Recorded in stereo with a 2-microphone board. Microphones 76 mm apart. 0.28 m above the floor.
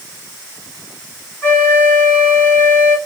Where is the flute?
25° left (ahead or behind), 1.2 m.